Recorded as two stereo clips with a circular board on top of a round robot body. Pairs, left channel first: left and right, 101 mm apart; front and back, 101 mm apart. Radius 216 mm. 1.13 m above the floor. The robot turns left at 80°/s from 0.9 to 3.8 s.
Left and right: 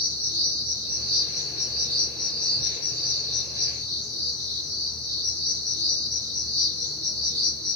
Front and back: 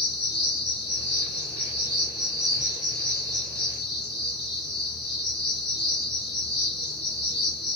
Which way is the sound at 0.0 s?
110° right.